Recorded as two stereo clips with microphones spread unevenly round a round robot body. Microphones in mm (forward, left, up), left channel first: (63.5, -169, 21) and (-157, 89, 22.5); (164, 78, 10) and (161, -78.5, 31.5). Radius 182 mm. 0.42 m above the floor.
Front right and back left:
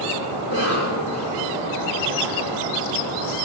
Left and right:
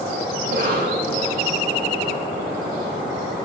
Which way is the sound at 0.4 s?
90° right.